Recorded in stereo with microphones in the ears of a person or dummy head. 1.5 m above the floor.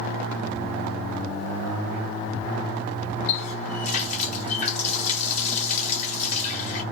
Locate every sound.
3.3 s a running tap: 40° left (ahead or behind), 0.9 m